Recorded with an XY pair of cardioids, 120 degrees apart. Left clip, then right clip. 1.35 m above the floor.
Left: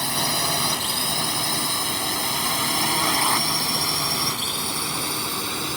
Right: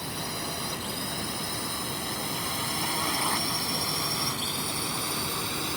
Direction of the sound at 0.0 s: 65° left.